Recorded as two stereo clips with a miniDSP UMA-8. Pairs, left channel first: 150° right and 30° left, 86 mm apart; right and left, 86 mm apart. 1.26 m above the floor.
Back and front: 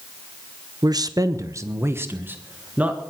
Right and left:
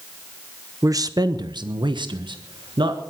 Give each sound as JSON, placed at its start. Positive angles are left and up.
{"t": 0.8, "sound": "a man speaking", "azimuth_deg": 50, "distance_m": 0.9}